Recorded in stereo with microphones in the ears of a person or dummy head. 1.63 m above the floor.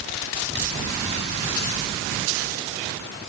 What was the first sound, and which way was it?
Only background noise.